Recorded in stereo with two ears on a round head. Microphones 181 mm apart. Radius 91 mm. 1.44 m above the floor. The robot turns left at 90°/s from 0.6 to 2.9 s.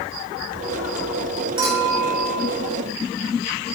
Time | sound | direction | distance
1.6 | a clink | 155° right | 3.5 m